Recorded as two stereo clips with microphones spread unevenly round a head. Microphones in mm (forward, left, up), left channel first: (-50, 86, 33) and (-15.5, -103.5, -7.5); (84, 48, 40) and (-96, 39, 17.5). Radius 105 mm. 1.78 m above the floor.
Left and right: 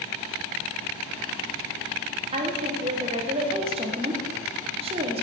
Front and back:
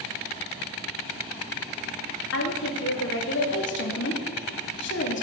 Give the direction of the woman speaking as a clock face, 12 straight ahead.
12 o'clock.